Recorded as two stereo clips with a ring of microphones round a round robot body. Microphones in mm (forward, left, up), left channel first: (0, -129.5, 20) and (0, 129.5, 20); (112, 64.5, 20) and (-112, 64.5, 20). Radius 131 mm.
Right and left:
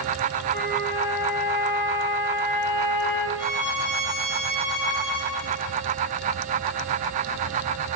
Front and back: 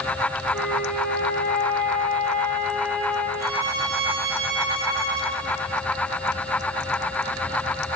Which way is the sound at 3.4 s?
110° right.